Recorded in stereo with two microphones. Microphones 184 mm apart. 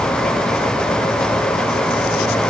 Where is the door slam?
I don't hear a door slam.